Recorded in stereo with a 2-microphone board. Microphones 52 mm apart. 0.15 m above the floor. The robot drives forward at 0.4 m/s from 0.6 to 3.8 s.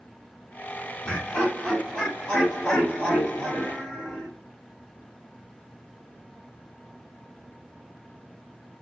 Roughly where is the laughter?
Left.